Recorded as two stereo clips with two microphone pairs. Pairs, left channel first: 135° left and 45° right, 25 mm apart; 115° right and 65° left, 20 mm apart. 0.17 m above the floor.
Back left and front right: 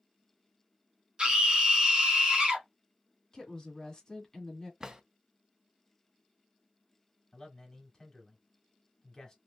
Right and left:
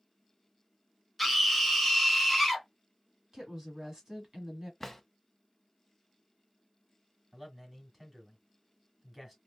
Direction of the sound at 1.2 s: 30° right.